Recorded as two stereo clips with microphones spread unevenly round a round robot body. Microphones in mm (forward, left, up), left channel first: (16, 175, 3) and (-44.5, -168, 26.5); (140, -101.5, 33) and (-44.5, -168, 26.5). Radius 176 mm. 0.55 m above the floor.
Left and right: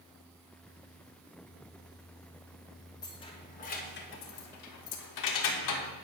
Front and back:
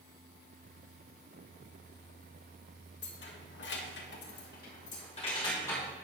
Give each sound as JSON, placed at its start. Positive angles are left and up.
{"t": 3.0, "sound": "keys jangling", "azimuth_deg": 5, "distance_m": 1.5}